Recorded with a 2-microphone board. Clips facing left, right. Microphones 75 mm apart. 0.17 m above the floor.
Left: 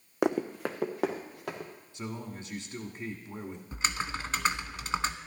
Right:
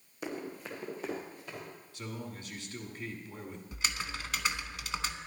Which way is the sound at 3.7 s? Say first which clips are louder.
Left 5 dB; 35° left (ahead or behind).